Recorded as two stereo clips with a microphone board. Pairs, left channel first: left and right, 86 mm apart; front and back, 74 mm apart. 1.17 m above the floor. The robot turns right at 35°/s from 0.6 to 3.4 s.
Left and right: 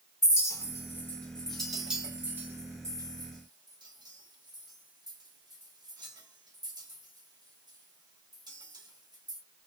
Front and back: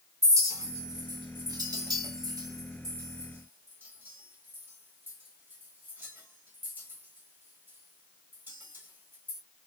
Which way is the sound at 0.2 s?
140° left.